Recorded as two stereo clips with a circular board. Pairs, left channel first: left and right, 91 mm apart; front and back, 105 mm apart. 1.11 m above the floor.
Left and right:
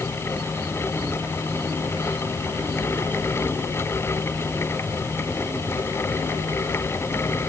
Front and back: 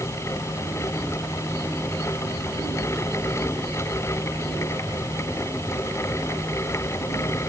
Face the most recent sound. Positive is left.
No sound to turn to.